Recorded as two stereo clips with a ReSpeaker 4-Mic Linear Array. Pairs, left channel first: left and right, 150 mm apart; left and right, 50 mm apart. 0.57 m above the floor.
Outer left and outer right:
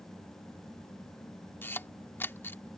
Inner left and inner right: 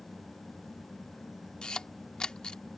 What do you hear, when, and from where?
1.6 s a camera shutter: 15° left (ahead or behind)